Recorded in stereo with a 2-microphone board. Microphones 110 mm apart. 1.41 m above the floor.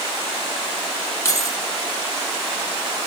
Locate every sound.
1.2 s keys jangling: 25° left (ahead or behind), 1.7 m